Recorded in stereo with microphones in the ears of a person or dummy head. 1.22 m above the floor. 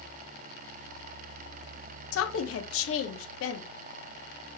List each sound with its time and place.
2.1 s a woman speaking: 70° left (ahead or behind), 0.9 m